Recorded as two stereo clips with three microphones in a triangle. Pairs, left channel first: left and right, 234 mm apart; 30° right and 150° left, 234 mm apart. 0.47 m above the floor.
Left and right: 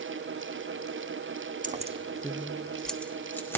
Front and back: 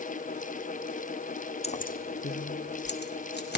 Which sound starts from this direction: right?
Keys jangling, at 1.6 s.